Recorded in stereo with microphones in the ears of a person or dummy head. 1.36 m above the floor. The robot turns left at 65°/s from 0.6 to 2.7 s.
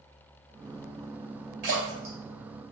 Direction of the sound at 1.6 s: 50° right (ahead or behind).